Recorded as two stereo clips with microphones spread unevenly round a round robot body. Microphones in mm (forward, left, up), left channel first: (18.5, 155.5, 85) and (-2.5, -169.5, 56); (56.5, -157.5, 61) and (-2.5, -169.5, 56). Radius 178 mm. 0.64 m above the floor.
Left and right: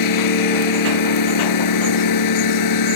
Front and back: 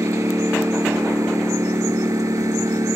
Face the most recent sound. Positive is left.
turn(degrees=120)